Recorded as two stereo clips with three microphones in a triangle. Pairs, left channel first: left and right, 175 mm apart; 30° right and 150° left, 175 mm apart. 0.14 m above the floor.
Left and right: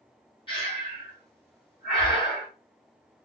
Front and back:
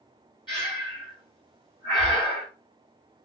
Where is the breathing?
30° left, 1.8 m.